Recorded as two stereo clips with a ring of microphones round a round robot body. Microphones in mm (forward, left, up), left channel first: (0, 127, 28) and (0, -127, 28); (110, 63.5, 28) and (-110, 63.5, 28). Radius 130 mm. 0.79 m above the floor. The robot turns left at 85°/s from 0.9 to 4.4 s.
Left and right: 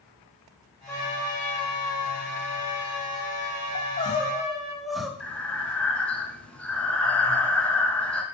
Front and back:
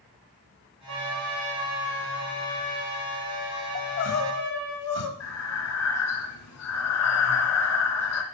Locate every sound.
0.9 s a trumpet: 175° left, 4.5 m; by 4.8 s 125° right, 4.5 m
3.8 s crying: 55° left, 1.3 m; by 5.1 s straight ahead, 1.3 m
5.2 s breathing: 5° left, 1.8 m